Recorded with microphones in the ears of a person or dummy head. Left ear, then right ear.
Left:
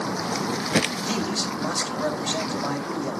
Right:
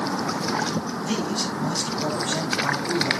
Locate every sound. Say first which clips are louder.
1.0 s a man speaking: even; 70° left (ahead or behind), 4.5 m